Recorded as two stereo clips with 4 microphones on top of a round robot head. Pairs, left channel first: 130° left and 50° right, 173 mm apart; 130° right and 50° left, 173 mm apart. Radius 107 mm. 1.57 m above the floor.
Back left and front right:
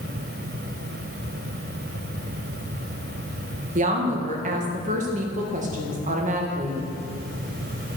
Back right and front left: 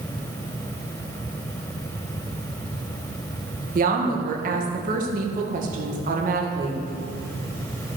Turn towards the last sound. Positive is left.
turn(degrees=0)